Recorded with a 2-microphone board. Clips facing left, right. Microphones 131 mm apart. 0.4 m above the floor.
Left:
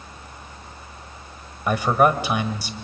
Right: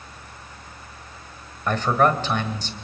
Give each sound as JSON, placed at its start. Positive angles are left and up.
{"t": 1.7, "sound": "a man speaking", "side_deg": 10, "distance_m": 1.7}